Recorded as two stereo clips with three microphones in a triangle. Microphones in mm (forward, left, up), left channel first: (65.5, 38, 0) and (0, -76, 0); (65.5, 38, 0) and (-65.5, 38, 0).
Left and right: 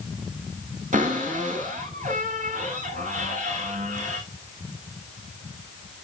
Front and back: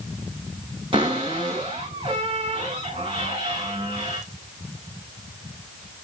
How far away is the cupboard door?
About 5.5 m.